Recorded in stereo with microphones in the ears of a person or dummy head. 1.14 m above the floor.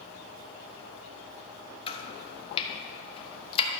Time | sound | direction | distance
1.9 | chopping | 35° left (ahead or behind) | 1.0 m